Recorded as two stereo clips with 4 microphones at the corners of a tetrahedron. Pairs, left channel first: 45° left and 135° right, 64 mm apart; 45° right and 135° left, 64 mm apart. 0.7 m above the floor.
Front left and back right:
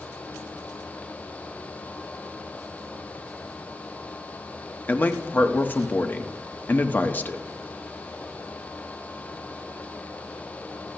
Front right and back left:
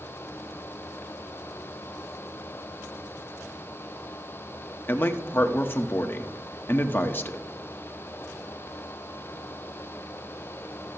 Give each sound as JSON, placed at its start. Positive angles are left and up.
{"t": 4.9, "sound": "a man speaking", "azimuth_deg": -5, "distance_m": 1.0}